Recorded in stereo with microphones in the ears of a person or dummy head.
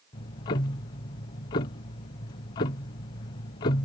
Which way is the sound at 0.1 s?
20° left (ahead or behind).